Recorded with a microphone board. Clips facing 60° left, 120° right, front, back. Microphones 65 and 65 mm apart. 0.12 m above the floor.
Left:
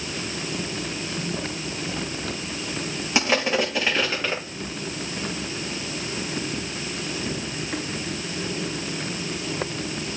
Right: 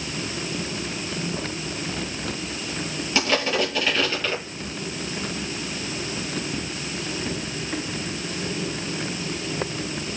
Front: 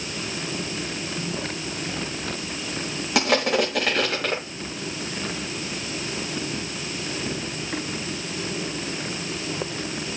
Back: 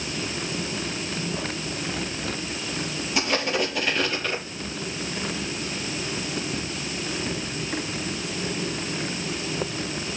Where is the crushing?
10° right, 8 m.